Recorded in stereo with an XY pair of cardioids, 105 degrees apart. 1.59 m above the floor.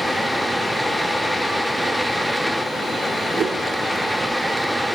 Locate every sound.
0.0 s a fan: 5° left, 0.7 m
3.4 s a whoosh: 50° right, 2.5 m